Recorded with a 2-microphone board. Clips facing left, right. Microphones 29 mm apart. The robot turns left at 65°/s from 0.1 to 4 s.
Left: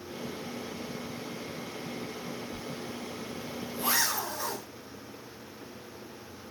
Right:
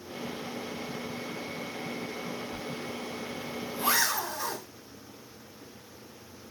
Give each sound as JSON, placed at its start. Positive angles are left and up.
{"t": 2.5, "sound": "a zipper", "side_deg": -55, "distance_m": 0.5}